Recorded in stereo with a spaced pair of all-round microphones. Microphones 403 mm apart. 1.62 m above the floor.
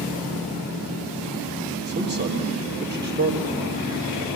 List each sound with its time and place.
1.9 s a man speaking: 25° right (ahead or behind), 1.5 m